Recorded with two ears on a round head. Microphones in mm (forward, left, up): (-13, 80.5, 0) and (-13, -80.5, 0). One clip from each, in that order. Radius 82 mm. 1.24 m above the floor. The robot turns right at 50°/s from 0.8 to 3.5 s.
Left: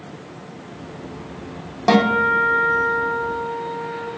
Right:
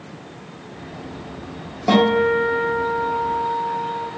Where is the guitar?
30° left, 1.0 m; by 4.1 s 115° left, 1.0 m.